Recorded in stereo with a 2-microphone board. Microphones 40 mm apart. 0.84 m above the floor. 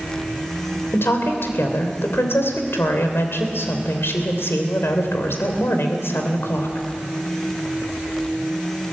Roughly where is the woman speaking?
Left.